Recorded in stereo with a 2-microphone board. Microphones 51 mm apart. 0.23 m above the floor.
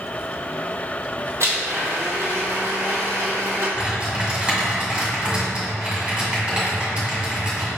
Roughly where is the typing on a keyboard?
Right.